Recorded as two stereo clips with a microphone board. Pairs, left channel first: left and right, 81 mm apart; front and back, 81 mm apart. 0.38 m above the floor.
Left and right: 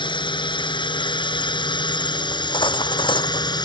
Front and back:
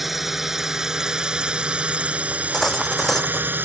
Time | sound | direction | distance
0.0 | a drone | 95° left | ?
2.3 | cutlery clinking | 90° left | ?